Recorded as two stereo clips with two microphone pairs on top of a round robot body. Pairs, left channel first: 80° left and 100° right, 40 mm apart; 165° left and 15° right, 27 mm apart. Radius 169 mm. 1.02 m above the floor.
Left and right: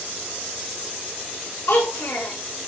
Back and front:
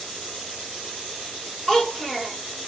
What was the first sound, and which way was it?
A child speaking, 70° left.